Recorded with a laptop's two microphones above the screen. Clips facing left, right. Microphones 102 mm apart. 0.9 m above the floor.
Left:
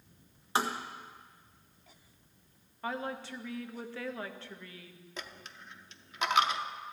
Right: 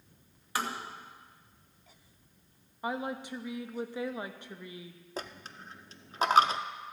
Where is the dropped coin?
35° right (ahead or behind), 0.6 m.